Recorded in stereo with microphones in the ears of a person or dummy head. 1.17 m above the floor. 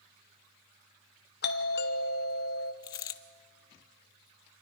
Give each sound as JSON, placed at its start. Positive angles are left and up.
{"t": 1.4, "sound": "a doorbell", "side_deg": 45, "distance_m": 0.9}
{"t": 2.8, "sound": "a dropped coin", "side_deg": 25, "distance_m": 0.6}